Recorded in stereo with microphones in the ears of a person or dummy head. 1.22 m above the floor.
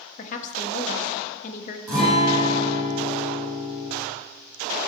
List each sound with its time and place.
0.2 s a woman speaking: 50° left (ahead or behind), 0.9 m
1.9 s a guitar: 20° right (ahead or behind), 4.5 m